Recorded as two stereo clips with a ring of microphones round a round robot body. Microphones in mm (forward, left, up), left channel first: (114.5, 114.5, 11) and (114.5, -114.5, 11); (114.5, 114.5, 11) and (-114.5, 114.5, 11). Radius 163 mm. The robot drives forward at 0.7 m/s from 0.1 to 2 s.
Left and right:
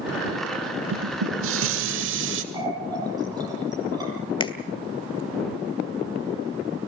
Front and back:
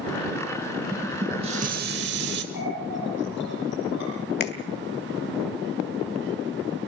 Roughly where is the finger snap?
Ahead left.